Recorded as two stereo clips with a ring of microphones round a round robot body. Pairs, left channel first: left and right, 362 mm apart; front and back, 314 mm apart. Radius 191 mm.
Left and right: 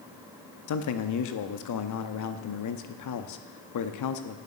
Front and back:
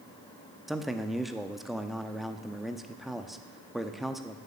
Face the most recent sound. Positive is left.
turn(degrees=90)